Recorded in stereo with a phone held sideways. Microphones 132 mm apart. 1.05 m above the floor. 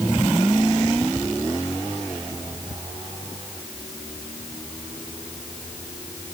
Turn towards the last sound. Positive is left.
No sound to turn to.